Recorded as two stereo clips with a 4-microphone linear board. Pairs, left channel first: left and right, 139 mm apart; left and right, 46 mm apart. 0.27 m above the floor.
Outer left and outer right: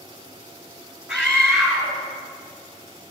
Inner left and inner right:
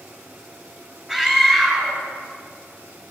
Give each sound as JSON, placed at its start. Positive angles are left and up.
{"t": 1.1, "sound": "a scream", "side_deg": -5, "distance_m": 2.5}